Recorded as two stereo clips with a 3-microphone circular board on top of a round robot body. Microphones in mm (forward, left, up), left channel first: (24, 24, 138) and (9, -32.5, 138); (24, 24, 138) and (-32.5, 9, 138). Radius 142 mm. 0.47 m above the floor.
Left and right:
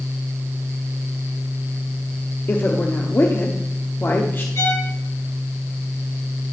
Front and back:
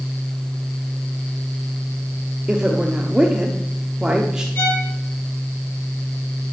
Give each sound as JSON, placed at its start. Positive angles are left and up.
{"t": 2.5, "sound": "a woman speaking", "azimuth_deg": 120, "distance_m": 1.1}
{"t": 4.5, "sound": "a violin", "azimuth_deg": 65, "distance_m": 3.5}